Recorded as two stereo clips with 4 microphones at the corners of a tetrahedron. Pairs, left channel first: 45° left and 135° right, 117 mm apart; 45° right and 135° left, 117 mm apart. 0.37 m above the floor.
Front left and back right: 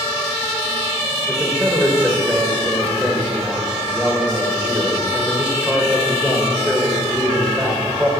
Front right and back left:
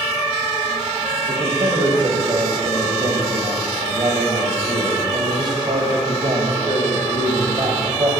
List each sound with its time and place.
1.2 s a man speaking: 150° left, 1.7 m